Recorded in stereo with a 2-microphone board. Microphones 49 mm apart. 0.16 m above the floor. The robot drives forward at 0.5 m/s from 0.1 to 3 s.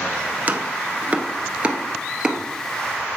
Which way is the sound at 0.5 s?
35° right (ahead or behind).